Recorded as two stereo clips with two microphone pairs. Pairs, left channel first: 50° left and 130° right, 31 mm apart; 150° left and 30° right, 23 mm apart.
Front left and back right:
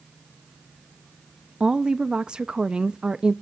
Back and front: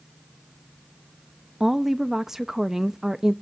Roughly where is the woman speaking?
Right.